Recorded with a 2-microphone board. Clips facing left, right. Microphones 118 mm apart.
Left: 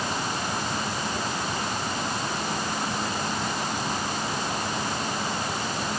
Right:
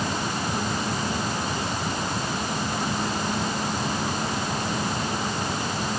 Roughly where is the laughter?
I don't hear laughter.